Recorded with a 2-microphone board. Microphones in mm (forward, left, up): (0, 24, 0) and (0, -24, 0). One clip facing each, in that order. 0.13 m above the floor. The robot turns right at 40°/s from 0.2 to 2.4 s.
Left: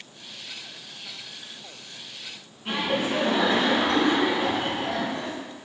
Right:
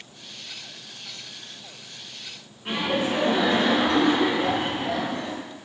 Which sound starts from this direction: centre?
Laughter, at 2.6 s.